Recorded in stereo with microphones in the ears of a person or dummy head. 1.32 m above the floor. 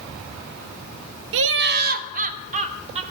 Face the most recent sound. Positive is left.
turn(degrees=-40)  # may be behind; listen again after turning